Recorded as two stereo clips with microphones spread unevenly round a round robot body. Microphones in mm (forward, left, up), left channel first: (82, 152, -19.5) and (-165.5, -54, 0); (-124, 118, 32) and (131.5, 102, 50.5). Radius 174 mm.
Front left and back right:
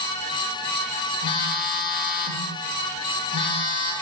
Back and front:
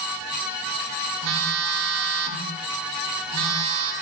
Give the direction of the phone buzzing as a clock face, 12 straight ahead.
1 o'clock.